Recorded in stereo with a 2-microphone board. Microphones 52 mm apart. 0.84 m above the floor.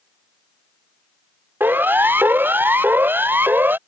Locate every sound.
1.6 s a siren: 40° right (ahead or behind)